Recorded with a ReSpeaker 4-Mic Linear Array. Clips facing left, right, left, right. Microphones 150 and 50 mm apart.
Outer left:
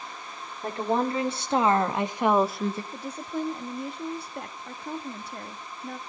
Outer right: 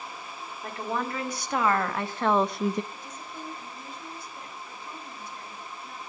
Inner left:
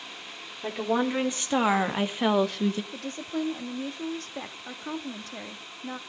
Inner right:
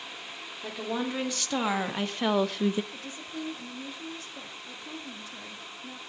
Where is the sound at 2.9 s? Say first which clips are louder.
Outer left 9 dB, inner left 6 dB; 70° left (ahead or behind), 1.9 m.